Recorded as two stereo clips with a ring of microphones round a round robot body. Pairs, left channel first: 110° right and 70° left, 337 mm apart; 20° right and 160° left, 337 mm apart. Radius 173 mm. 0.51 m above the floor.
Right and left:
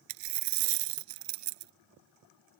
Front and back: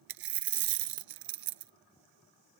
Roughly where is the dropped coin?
Left.